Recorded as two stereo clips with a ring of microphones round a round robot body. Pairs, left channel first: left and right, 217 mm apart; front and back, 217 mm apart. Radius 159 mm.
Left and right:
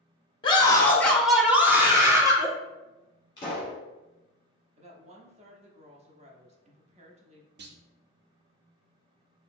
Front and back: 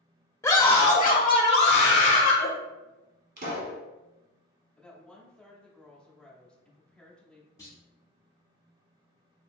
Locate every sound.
0.4 s a scream: 60° left, 0.8 m; by 2.5 s 20° right, 1.4 m
3.4 s a pop: 155° left, 1.5 m
4.8 s a woman speaking: 85° right, 0.7 m
7.6 s a clunk: 70° right, 0.6 m